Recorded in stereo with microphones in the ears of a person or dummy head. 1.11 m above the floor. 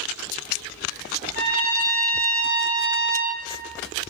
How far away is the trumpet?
About 1.1 m.